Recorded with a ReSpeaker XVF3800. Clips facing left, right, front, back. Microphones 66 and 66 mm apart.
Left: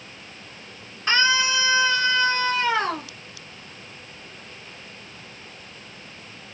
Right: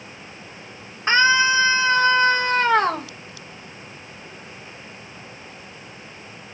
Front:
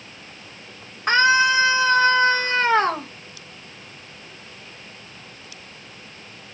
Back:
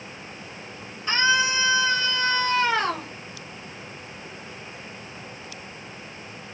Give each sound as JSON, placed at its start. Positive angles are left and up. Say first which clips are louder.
{"t": 1.1, "sound": "a scream", "louder": "right 4 dB, front 6 dB", "azimuth_deg": -30, "distance_m": 2.5}